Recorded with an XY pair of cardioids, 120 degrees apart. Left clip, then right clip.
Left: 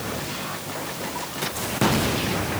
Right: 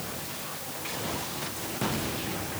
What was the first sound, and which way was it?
Only background noise.